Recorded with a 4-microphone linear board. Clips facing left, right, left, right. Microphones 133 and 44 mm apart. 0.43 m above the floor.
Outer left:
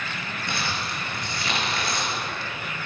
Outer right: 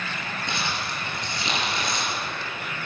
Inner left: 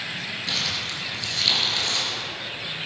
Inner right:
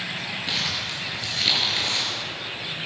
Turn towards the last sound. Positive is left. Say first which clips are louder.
# outer left 1 dB, even
turn(degrees=-20)  # may be behind; listen again after turning